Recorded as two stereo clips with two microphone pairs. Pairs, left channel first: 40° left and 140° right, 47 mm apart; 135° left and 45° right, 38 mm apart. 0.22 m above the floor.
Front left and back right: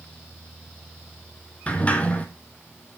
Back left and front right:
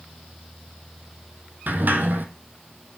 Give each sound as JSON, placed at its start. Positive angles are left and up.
{"t": 1.7, "sound": "a sliding door", "azimuth_deg": -20, "distance_m": 1.4}